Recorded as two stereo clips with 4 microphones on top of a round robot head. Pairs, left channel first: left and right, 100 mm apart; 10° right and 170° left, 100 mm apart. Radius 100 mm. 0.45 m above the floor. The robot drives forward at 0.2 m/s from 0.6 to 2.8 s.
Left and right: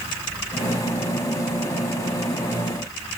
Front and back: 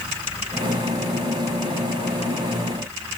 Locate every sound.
Only background noise.